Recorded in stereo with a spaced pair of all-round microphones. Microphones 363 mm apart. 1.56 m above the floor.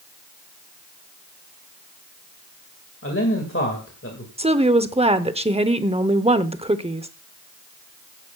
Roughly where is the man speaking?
Left.